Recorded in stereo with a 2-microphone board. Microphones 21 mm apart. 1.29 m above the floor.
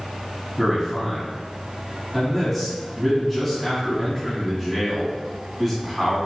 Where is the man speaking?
Centre (ahead or behind), 2 m.